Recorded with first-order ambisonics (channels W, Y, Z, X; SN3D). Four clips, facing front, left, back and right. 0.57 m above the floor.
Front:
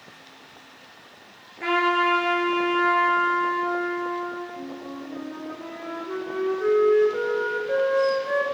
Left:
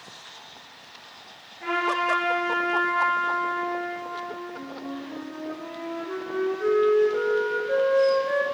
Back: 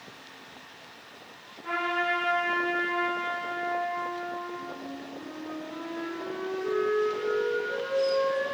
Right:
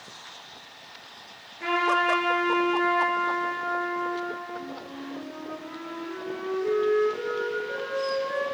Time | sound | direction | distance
1.6 | a trumpet | 20° right | 9.5 m
4.6 | a flute | 35° left | 10 m